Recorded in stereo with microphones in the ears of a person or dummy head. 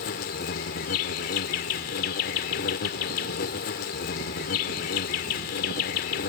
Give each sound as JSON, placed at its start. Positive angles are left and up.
{"t": 0.0, "sound": "an insect", "side_deg": 45}